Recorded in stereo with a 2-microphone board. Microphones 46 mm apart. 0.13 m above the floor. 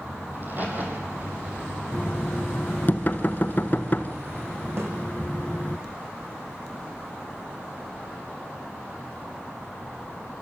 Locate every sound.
0.3 s a crack: 40° right (ahead or behind), 5 m
1.9 s knocking: 40° left (ahead or behind), 1.2 m
4.8 s a snare drum: 60° right (ahead or behind), 4.5 m